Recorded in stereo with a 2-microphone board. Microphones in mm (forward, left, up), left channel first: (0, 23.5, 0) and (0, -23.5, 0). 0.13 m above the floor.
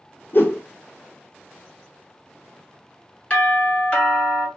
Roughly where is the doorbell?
Left.